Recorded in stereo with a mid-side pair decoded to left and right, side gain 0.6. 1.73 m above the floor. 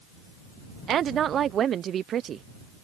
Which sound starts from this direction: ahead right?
A woman speaking, at 0.9 s.